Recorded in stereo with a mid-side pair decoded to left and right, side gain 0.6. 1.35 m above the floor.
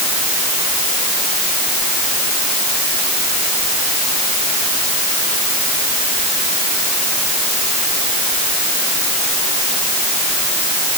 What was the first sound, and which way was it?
Only background noise.